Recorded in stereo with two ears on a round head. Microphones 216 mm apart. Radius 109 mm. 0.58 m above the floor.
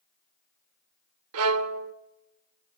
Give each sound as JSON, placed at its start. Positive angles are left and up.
{"t": 1.3, "sound": "a violin", "side_deg": -65, "distance_m": 0.8}